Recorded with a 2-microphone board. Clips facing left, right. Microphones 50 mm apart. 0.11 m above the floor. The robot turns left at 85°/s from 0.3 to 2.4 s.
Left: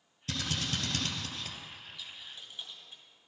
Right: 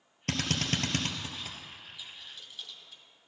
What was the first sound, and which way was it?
A drill, 55° right (ahead or behind).